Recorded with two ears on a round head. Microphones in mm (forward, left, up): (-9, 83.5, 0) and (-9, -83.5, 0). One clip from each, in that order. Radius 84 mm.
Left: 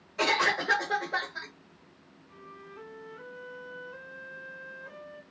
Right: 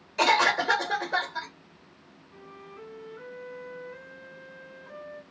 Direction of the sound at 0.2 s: 40° right (ahead or behind).